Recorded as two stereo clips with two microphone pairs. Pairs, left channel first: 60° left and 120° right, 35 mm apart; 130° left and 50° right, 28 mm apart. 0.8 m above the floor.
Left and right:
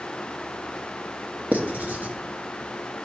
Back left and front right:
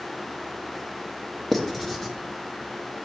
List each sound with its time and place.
1.5 s writing: 150° right, 0.8 m